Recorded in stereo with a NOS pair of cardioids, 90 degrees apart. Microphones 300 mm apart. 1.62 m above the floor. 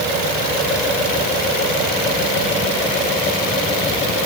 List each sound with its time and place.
Only background noise.